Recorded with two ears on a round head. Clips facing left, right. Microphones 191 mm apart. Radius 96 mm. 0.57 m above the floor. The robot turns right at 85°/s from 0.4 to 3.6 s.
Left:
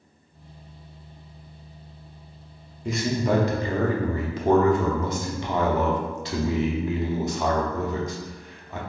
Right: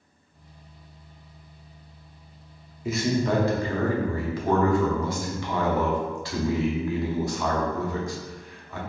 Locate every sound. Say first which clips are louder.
2.9 s a man speaking: even; 5° right (ahead or behind), 0.6 m; by 8.8 s 20° left (ahead or behind), 0.6 m